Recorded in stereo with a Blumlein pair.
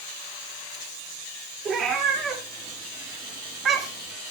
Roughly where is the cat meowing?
Ahead right.